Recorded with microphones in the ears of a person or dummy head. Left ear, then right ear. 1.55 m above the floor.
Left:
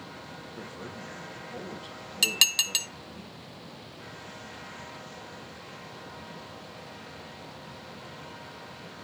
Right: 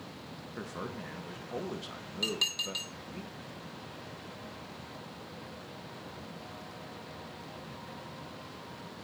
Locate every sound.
0.6 s a man speaking: 75° right (ahead or behind), 1.2 m
2.2 s dishes clattering: 40° left (ahead or behind), 0.7 m